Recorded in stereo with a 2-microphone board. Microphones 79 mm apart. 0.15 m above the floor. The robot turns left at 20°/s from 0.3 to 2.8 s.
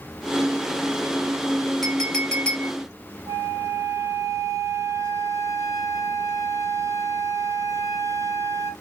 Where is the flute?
40° right (ahead or behind), 1.6 m.